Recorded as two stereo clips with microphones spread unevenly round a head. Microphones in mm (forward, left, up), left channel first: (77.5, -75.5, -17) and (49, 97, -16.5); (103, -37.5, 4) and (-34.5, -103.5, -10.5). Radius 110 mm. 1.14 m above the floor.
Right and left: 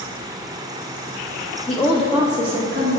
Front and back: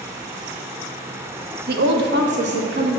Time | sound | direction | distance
1.7 | a woman speaking | 145° right | 0.8 m